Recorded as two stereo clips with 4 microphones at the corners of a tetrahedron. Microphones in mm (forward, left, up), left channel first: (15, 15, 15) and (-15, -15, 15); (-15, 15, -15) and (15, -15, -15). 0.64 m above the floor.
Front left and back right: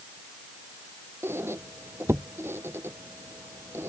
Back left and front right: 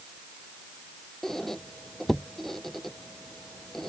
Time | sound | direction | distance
1.2 | a squeak | 145° right | ?